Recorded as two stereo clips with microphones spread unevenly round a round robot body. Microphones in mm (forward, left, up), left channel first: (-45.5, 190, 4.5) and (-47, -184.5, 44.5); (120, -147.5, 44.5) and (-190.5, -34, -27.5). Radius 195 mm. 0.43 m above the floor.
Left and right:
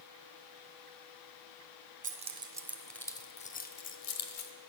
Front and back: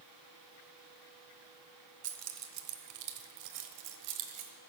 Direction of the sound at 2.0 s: 160° right.